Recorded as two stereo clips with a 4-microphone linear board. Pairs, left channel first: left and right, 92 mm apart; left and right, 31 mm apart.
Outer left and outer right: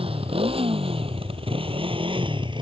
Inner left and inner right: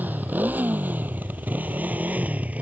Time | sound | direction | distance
0.0 | a motorcycle | 85° right | ?